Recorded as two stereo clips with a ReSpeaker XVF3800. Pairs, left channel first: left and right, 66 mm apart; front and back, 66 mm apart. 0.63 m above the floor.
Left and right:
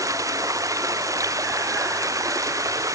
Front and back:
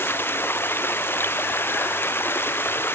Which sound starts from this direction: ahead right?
Running water, at 0.0 s.